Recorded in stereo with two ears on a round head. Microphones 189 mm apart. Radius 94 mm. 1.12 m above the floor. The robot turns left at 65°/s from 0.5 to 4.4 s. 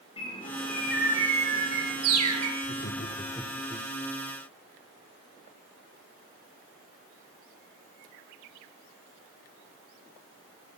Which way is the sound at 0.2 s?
25° left.